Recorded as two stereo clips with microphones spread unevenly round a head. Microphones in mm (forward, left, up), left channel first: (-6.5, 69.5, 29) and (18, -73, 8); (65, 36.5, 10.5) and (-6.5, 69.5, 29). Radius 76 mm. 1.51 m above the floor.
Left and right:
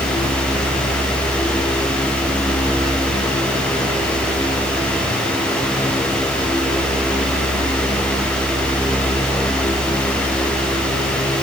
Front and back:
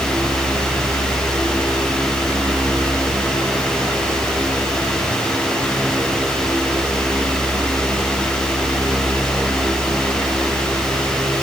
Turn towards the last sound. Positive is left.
No sound to turn to.